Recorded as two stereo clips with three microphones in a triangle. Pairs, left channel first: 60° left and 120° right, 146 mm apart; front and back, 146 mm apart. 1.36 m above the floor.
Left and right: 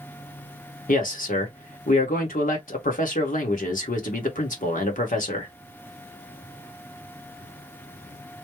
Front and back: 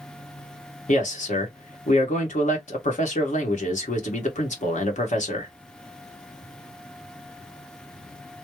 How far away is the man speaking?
About 1.4 m.